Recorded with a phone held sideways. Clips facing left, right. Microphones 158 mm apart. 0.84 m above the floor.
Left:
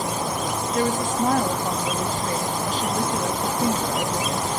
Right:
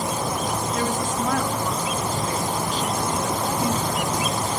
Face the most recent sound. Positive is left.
turn(degrees=45)  # may be behind; listen again after turning